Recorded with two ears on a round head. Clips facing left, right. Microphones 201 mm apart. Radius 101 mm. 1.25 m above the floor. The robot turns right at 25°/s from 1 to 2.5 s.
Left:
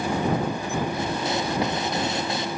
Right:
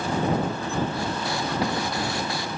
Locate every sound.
Only background noise.